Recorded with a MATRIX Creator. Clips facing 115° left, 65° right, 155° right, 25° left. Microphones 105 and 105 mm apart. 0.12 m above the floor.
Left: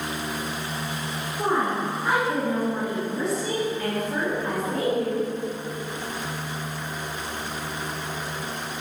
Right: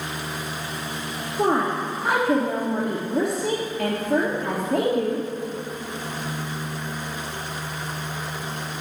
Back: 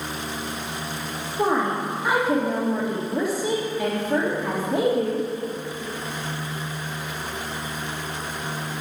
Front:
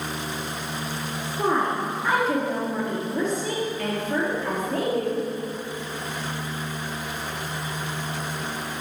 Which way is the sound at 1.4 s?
75° right.